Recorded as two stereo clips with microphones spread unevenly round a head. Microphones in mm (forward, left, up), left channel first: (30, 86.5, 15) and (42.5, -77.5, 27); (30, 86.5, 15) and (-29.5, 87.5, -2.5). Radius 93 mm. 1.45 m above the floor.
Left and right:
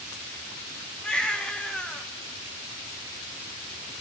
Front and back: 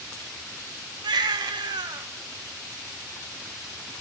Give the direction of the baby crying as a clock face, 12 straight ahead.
6 o'clock.